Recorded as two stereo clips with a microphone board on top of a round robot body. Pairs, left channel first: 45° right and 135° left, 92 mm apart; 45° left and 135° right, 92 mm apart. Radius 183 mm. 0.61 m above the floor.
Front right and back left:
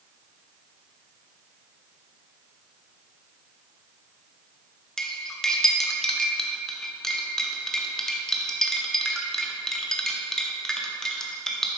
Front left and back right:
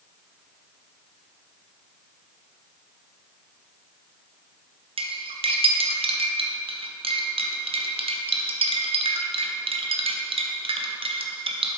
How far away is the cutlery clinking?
About 0.8 m.